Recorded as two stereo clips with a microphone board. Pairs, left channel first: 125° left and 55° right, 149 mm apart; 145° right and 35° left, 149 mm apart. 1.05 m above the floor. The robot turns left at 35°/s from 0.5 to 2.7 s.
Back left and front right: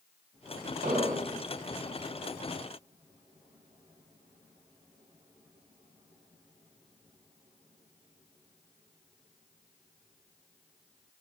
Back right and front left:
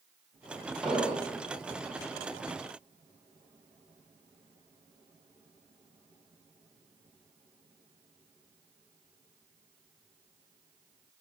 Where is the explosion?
55° right, 3.5 m; by 1.3 s 75° right, 3.5 m.